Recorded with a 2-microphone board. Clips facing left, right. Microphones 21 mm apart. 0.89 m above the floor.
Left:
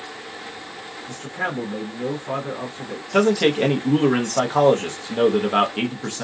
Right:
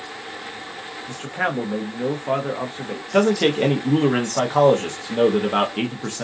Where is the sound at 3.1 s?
Centre (ahead or behind), 0.7 m.